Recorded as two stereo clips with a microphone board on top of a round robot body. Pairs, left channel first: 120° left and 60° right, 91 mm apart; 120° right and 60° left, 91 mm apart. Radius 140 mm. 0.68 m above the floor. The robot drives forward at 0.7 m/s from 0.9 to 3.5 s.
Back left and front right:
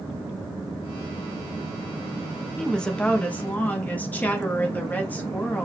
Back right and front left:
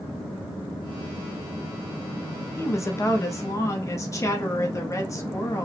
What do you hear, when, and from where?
2.6 s a woman speaking: 155° right, 0.8 m; by 5.7 s 170° right, 1.3 m